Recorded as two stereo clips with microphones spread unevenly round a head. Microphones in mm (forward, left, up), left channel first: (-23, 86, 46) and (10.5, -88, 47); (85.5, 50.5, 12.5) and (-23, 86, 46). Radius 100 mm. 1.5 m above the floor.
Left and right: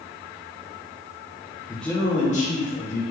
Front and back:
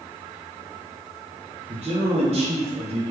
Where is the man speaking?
160° right, 0.5 m; by 3.0 s 135° left, 1.4 m.